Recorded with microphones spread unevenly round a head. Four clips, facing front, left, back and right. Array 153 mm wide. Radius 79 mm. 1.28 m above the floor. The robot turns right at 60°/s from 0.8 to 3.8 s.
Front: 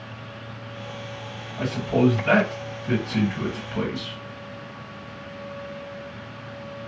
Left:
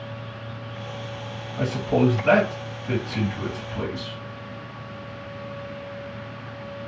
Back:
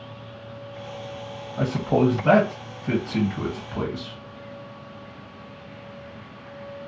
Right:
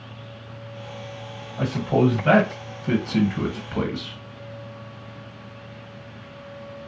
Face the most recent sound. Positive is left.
turn(degrees=-60)